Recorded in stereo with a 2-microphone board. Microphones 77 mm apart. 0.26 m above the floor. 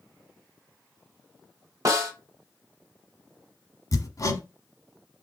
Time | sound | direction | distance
1.9 | a snare drum | 45° right (ahead or behind) | 1.2 m
3.9 | hammering | 50° left (ahead or behind) | 0.8 m